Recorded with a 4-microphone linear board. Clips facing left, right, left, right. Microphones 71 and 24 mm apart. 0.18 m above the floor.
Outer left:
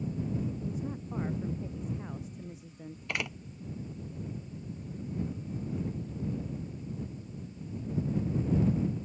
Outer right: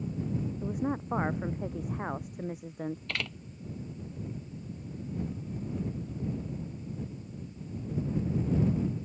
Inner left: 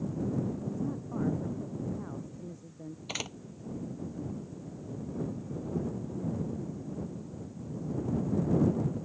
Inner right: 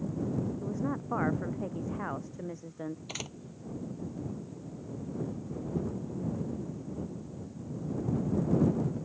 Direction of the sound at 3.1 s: 15° left (ahead or behind).